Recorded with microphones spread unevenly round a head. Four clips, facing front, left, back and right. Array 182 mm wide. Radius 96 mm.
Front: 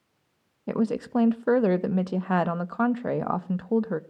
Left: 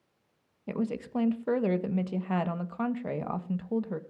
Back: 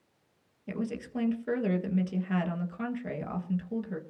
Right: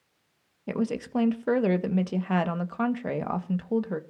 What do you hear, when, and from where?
0.7 s a woman speaking: 20° right, 1.4 m